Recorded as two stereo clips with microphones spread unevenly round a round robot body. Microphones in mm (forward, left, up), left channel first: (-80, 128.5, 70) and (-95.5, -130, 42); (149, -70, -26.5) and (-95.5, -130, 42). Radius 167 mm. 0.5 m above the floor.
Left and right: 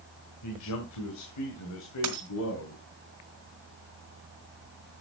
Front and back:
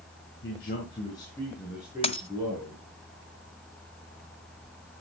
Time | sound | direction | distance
0.4 | a man speaking | 60° left | 2 m
2.0 | a dropped coin | 55° right | 1.5 m